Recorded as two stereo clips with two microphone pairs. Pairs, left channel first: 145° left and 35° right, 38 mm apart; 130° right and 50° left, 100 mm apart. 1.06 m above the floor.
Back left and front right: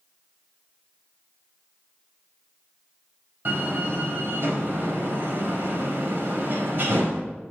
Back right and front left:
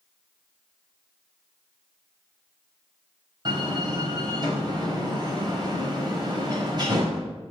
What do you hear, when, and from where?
3.5 s a door slam: 5° left, 4.5 m